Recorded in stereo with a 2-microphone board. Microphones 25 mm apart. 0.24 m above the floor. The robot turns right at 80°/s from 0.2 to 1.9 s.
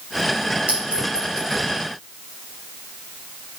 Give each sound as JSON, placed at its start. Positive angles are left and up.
{"t": 0.7, "sound": "a clink", "side_deg": -70, "distance_m": 3.5}